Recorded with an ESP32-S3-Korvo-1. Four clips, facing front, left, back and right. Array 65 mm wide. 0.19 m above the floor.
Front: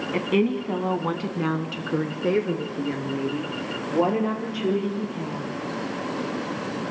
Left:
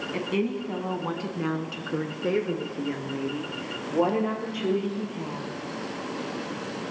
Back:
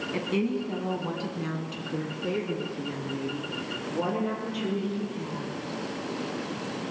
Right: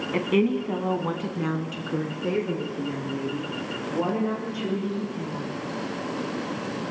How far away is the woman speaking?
About 1.3 m.